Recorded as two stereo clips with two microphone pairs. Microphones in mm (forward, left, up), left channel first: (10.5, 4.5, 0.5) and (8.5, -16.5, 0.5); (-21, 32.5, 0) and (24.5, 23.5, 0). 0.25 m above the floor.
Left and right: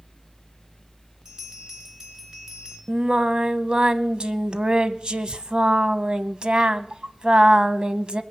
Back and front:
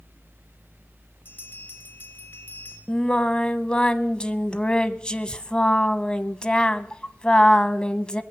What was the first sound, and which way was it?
A bell, 150° right.